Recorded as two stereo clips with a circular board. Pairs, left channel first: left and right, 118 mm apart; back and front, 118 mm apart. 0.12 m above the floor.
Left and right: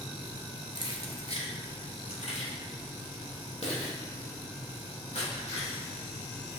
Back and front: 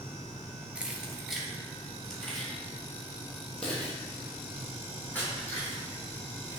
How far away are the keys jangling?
About 1.4 m.